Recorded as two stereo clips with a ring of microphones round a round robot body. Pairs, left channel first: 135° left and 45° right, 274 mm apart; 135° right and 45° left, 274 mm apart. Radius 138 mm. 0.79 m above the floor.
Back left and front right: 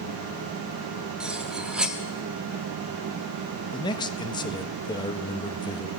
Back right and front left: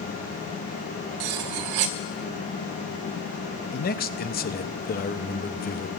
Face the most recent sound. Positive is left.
turn(degrees=-160)